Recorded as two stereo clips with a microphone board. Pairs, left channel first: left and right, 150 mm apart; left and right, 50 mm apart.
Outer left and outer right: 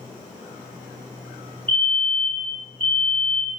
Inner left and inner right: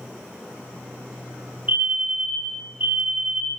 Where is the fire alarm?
35° right (ahead or behind), 5.5 m.